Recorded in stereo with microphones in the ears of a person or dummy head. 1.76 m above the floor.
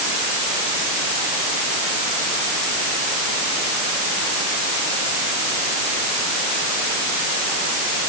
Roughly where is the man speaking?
I don't hear a man speaking.